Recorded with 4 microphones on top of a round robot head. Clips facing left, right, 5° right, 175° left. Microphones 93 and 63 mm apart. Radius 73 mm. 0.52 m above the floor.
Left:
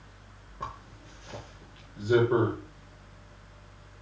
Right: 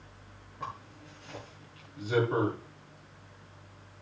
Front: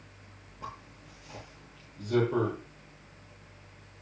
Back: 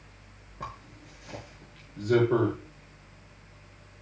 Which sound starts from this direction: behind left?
A zipper, at 0.6 s.